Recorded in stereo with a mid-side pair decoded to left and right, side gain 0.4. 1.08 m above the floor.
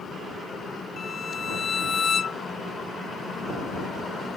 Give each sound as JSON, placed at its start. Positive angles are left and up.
{"t": 1.0, "sound": "a violin", "azimuth_deg": 50}